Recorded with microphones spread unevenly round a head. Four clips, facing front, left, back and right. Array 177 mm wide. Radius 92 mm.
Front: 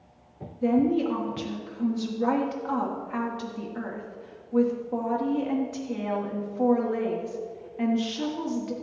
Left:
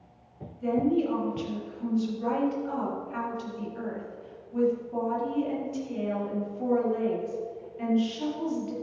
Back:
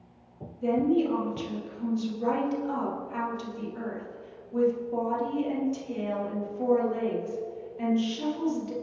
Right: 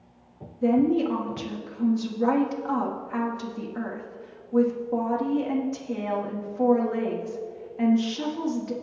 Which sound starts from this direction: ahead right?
A woman speaking, at 0.6 s.